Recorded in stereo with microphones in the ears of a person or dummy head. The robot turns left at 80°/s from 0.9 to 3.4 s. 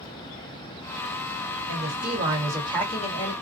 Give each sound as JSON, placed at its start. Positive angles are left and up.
{"t": 1.7, "sound": "a woman speaking", "azimuth_deg": -100, "distance_m": 1.5}